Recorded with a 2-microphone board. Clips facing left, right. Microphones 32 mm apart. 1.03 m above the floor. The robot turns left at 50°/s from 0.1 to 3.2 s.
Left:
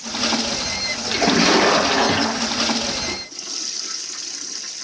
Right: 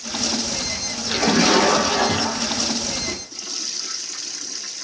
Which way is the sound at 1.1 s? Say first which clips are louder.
Left 1 dB; straight behind.